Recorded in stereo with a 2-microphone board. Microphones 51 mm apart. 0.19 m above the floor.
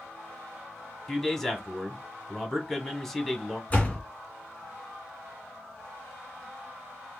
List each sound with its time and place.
1.1 s a man speaking: 5° left (ahead or behind), 1.1 m
3.7 s a door slam: 25° left (ahead or behind), 1.8 m